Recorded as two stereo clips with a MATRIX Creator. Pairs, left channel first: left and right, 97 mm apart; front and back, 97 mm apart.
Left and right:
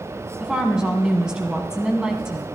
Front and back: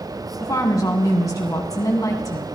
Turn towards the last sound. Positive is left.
turn(degrees=-10)